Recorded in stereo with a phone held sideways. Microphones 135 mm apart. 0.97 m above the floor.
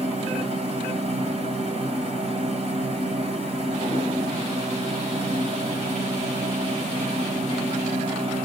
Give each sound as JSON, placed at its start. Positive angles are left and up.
{"t": 0.0, "sound": "a machine running", "side_deg": -55, "distance_m": 2.0}